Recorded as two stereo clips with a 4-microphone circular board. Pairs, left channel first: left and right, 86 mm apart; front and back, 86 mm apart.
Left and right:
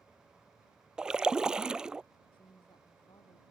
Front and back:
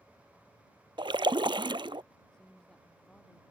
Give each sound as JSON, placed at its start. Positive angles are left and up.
{"t": 1.0, "sound": "a splash", "azimuth_deg": -170}
{"t": 2.3, "sound": "a woman speaking", "azimuth_deg": 80}